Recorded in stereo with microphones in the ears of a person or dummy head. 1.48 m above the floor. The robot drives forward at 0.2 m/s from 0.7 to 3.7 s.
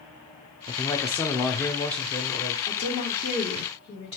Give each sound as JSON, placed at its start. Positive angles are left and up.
{"t": 0.7, "sound": "a man speaking", "side_deg": 15, "distance_m": 0.6}
{"t": 2.7, "sound": "a woman speaking", "side_deg": 35, "distance_m": 2.0}